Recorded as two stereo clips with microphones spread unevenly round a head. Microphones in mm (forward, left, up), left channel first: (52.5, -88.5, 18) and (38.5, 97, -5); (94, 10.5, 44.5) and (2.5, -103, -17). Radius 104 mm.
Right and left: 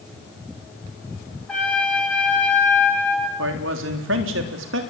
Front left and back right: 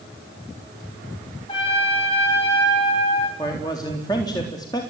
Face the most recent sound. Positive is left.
turn(degrees=125)